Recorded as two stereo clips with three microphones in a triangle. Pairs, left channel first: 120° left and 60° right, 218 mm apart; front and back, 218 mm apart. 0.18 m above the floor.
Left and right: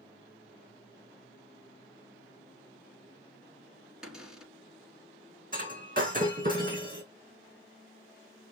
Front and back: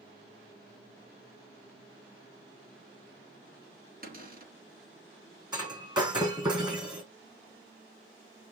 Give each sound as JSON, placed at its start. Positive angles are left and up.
{"t": 4.0, "sound": "a cupboard door", "azimuth_deg": -145, "distance_m": 1.9}
{"t": 5.5, "sound": "breaking glass", "azimuth_deg": -110, "distance_m": 3.0}